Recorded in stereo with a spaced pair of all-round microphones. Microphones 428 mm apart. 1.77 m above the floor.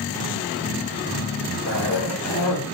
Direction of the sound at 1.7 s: 20° left (ahead or behind).